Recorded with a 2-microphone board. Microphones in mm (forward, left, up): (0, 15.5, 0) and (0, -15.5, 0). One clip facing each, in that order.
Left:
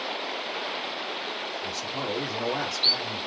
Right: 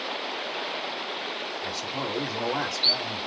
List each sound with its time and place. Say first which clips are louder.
1.6 s a man speaking: even; 15° right (ahead or behind), 2.5 m; by 3.3 s centre (ahead or behind), 3 m